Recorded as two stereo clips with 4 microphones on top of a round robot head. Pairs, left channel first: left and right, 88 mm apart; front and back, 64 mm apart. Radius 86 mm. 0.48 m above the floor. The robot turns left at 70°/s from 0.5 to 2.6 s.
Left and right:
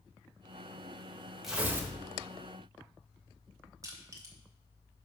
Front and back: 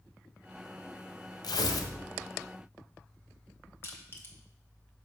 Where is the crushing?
45° right, 1.8 m.